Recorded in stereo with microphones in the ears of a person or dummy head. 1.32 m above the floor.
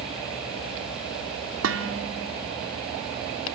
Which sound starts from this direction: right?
Dishes clattering, at 1.6 s.